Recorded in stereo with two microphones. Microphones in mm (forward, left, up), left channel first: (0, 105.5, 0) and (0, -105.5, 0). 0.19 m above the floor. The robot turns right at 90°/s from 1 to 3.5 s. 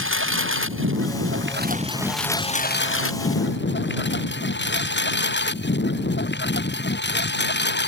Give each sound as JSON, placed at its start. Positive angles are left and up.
{"t": 0.0, "sound": "a lawn mower", "side_deg": -75}